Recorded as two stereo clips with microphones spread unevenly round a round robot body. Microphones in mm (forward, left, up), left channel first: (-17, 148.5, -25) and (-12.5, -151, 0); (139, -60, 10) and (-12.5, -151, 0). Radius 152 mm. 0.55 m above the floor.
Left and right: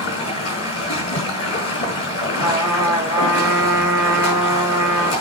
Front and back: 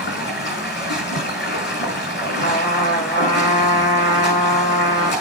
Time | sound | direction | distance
0.0 | running water | 40° left | 5 m
2.4 | a trumpet | 5° right | 5.5 m